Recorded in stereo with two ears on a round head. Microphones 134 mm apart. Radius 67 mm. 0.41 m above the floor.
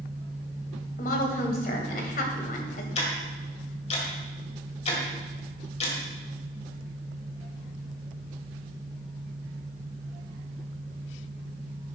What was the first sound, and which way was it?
A woman speaking, 60° left (ahead or behind).